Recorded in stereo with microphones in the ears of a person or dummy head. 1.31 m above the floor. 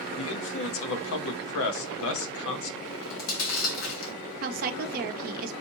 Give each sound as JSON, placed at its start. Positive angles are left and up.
{"t": 0.2, "sound": "a man speaking", "side_deg": 70, "distance_m": 0.8}
{"t": 2.9, "sound": "chewing", "side_deg": 65, "distance_m": 1.7}
{"t": 4.4, "sound": "a woman speaking", "side_deg": -50, "distance_m": 0.6}